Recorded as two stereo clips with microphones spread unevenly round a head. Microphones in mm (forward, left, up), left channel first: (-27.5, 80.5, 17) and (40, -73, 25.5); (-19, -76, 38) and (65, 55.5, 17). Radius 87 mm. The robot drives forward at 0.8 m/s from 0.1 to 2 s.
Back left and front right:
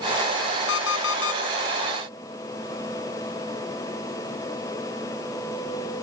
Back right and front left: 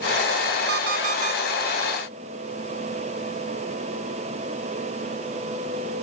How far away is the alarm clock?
About 1.6 m.